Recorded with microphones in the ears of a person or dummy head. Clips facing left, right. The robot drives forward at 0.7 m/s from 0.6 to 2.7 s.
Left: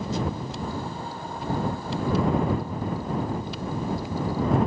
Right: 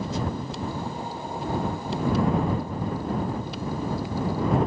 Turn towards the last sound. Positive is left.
No sound to turn to.